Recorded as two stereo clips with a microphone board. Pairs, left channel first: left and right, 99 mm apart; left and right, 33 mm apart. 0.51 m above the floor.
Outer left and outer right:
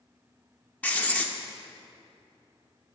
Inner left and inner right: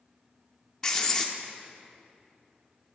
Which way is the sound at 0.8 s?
15° left (ahead or behind).